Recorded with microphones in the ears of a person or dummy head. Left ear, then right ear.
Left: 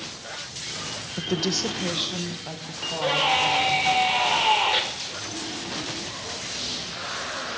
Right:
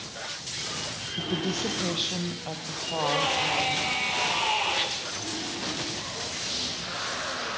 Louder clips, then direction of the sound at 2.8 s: Left 3 dB; 75° left (ahead or behind).